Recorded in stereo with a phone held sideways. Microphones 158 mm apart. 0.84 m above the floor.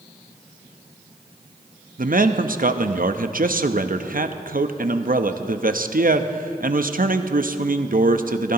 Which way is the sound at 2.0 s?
60° right (ahead or behind).